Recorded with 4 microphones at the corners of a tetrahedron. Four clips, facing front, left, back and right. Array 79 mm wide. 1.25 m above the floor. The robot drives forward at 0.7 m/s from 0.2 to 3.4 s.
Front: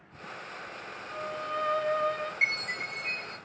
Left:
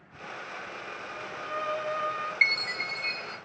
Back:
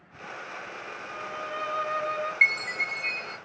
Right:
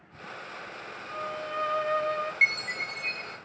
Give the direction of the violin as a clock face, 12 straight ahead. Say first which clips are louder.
Right 4 dB, front 1 dB; 3 o'clock.